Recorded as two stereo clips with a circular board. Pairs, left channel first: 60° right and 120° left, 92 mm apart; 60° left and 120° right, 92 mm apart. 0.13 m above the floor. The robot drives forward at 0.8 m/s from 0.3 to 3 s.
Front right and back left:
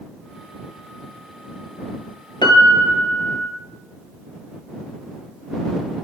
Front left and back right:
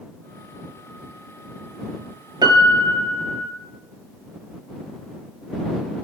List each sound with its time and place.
2.4 s a piano: 85° right, 0.9 m; by 3.5 s 120° right, 1.0 m